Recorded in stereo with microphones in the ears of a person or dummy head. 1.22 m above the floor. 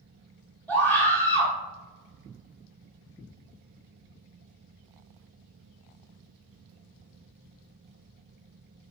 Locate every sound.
0.7 s a scream: 5° left (ahead or behind), 1.3 m